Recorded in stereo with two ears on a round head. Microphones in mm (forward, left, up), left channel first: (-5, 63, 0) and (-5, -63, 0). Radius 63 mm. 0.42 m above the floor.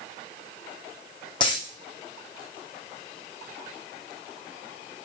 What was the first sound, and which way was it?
A dropped coin, 35° left (ahead or behind).